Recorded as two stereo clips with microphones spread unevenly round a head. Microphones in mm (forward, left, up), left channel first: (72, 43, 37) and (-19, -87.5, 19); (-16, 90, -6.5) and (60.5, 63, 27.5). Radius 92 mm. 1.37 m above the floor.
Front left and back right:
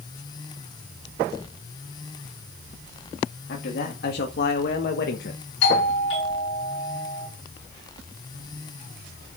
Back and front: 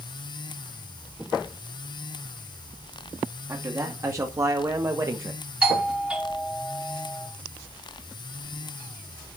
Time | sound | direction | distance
3.5 | a man speaking | 40° left | 2.5 m
5.6 | a doorbell | 60° left | 5.5 m